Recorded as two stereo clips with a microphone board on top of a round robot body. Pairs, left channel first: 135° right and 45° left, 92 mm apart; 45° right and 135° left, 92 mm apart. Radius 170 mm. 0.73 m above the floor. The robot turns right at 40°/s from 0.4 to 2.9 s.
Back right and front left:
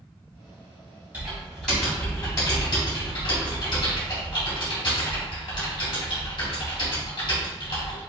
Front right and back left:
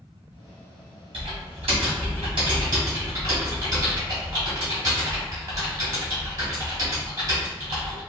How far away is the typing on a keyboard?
About 1.7 m.